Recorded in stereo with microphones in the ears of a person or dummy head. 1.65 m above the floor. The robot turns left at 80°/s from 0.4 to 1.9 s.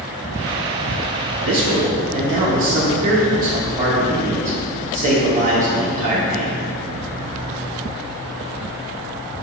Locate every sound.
1.4 s a man speaking: 100° right, 0.9 m; by 6.6 s 140° right, 0.9 m